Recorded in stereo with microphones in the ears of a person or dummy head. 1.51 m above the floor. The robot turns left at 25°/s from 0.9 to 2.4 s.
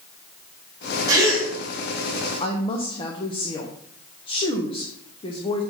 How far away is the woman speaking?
About 1.2 m.